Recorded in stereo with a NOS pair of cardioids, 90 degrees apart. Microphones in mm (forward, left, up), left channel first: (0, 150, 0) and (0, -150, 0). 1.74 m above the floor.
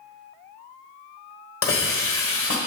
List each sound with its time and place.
1.6 s a hiss: 45° left, 1.7 m